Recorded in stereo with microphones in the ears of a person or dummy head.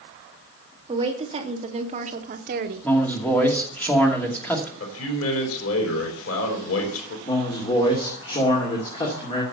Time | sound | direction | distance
0.9 | a woman speaking | 25° right (ahead or behind) | 2.5 m
2.8 | a man speaking | 10° left (ahead or behind) | 2.5 m
4.8 | a man speaking | 85° left | 3.5 m
7.2 | a man speaking | 30° left (ahead or behind) | 2.5 m